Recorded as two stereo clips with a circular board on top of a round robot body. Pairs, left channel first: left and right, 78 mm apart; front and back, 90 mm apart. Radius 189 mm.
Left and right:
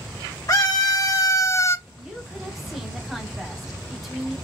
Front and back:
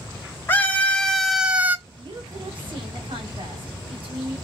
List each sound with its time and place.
0.5 s a scream: 60° left, 1.0 m; by 1.8 s 125° left, 0.8 m
1.9 s a woman speaking: 175° right, 2.5 m